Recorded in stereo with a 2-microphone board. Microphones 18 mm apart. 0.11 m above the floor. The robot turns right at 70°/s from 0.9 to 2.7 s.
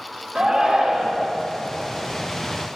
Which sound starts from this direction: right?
A shout, at 0.3 s.